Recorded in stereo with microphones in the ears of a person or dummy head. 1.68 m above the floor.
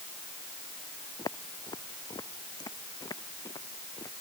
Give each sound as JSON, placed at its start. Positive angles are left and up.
{"t": 1.2, "sound": "footsteps", "side_deg": 20}